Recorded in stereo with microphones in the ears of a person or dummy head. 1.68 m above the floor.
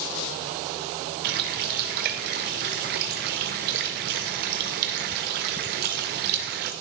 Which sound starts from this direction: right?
A running tap, at 1.2 s.